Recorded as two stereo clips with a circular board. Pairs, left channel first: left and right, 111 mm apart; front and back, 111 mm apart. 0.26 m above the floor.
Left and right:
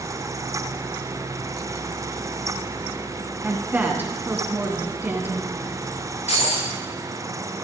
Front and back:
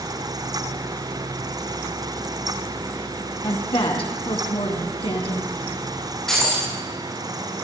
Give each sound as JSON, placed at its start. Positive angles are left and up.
{"t": 3.4, "sound": "a woman speaking", "azimuth_deg": -20, "distance_m": 2.5}
{"t": 6.3, "sound": "breaking glass", "azimuth_deg": 85, "distance_m": 7.0}